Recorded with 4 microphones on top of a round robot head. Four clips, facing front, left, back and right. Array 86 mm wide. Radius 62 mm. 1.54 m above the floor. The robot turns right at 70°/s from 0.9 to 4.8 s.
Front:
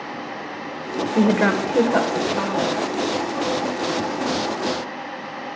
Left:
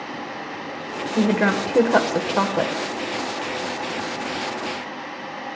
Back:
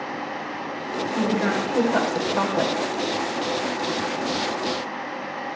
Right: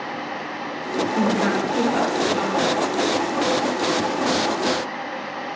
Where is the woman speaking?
15° left, 1.2 m; by 2.7 s 125° left, 1.2 m.